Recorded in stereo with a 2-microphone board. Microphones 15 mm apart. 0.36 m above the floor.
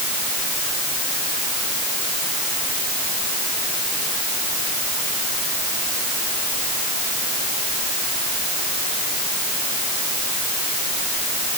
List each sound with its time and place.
Only background noise.